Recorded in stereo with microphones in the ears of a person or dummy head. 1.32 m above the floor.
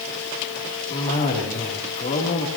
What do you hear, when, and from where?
0.9 s a cough: 35° left (ahead or behind), 3 m